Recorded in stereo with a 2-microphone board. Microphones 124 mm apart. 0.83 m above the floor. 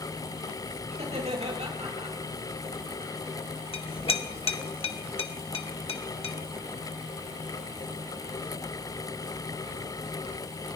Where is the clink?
50° left (ahead or behind), 1.2 m.